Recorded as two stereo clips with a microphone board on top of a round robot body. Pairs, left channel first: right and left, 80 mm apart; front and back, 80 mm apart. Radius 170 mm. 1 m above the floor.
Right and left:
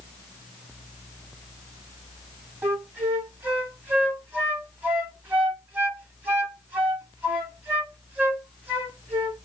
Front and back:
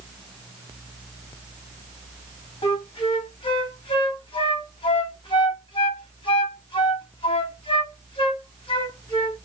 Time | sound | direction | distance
2.6 | a flute | 20° left | 2.5 m